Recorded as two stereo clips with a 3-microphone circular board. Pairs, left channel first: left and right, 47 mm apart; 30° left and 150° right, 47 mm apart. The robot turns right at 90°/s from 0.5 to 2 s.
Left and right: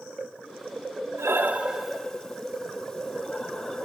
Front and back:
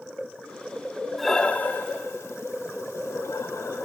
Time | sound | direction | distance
1.2 | breathing | 60° right | 0.9 m